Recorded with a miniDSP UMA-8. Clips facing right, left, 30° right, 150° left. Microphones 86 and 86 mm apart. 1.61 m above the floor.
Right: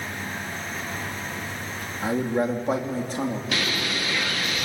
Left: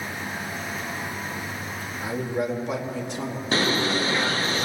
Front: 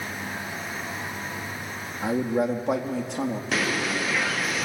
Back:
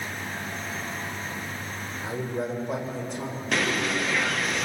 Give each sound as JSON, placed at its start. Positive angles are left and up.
{"t": 2.0, "sound": "a man speaking", "azimuth_deg": -40, "distance_m": 3.0}
{"t": 3.5, "sound": "a bird", "azimuth_deg": 60, "distance_m": 0.7}